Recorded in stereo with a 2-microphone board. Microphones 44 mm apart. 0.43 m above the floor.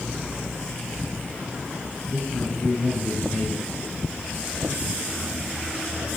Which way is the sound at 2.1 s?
50° left (ahead or behind).